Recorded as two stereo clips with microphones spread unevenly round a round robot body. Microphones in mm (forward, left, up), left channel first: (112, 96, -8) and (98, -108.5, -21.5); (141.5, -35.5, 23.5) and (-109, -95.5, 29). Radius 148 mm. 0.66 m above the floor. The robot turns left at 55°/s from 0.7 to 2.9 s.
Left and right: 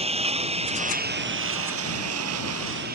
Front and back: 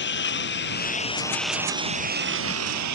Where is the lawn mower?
35° right; by 3.0 s 155° right.